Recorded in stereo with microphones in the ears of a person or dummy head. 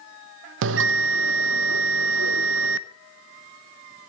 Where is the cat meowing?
I don't hear a cat meowing.